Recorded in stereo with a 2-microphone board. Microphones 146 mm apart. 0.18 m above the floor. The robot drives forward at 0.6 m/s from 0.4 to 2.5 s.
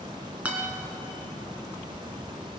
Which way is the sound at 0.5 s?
10° right (ahead or behind).